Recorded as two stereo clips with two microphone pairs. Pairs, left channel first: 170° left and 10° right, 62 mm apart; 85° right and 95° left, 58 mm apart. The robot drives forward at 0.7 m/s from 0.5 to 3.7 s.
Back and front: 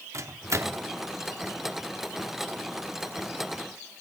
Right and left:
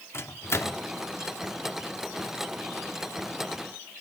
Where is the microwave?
45° right, 0.9 m; by 0.8 s 60° right, 0.8 m.